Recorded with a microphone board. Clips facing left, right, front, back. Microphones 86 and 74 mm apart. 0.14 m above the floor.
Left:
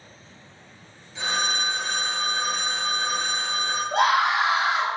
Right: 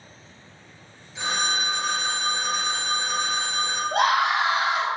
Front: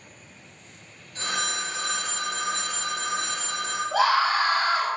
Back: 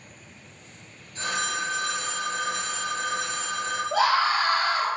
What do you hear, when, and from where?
1.1 s a phone ringing: straight ahead, 1.6 m
3.9 s a scream: 10° right, 1.4 m